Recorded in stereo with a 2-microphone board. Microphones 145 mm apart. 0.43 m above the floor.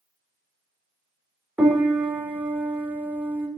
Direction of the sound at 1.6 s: 15° right (ahead or behind).